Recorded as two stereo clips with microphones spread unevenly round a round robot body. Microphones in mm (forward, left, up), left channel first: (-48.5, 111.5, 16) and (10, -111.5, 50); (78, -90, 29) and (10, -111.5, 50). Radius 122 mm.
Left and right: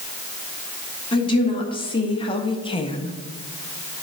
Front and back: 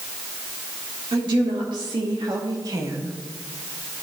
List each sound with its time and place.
1.1 s a woman speaking: 170° left, 2 m; by 3.2 s 130° left, 0.8 m